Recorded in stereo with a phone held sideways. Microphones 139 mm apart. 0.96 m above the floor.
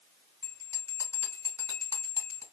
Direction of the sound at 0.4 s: 20° left (ahead or behind).